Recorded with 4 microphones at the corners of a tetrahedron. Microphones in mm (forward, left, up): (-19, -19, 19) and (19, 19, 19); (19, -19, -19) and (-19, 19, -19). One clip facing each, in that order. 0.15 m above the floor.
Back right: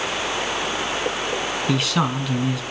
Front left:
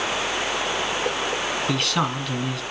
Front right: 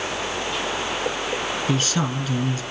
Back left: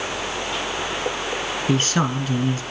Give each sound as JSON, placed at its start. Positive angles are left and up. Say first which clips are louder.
{"t": 1.7, "sound": "a man speaking", "louder": "back right 4 dB, back left 5 dB", "azimuth_deg": 140, "distance_m": 1.3}